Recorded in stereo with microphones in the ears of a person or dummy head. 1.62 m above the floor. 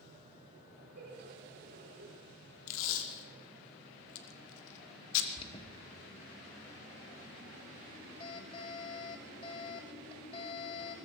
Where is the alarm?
30° left (ahead or behind), 2.5 m.